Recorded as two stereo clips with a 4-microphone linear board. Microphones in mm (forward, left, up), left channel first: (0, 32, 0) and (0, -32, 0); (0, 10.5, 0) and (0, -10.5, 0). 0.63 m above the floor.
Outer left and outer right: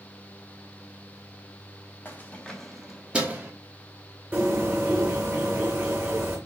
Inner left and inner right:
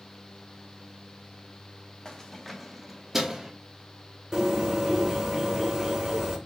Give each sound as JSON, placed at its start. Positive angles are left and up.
{"t": 2.0, "sound": "keys jangling", "side_deg": 30, "distance_m": 0.7}
{"t": 4.3, "sound": "a bird", "side_deg": -25, "distance_m": 1.1}